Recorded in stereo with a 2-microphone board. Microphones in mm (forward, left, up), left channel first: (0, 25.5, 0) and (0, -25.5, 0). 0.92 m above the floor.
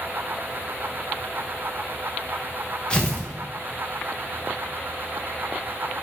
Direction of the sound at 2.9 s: 20° left (ahead or behind).